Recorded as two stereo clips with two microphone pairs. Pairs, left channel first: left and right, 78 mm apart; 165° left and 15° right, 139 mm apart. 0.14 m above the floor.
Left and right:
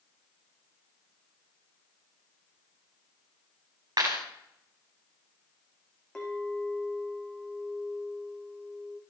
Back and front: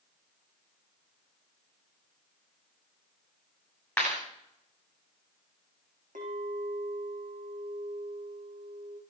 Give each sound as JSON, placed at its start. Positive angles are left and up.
{"t": 4.0, "sound": "a clap", "azimuth_deg": -110, "distance_m": 9.5}
{"t": 6.2, "sound": "a clink", "azimuth_deg": 5, "distance_m": 4.5}